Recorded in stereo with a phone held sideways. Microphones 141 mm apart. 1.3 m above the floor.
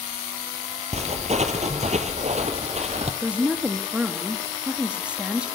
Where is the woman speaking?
10° right (ahead or behind), 2.5 m.